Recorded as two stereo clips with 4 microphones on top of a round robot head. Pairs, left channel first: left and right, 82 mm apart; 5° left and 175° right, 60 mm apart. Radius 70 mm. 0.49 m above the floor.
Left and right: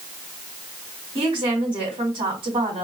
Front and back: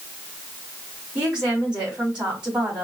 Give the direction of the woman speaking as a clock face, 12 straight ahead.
3 o'clock.